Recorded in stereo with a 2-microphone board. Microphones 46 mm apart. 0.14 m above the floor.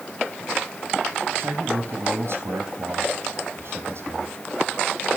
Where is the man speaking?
70° right (ahead or behind), 4.5 m.